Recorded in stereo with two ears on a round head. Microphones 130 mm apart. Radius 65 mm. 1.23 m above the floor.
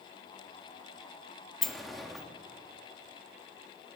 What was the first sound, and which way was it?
A sliding door, centre (ahead or behind).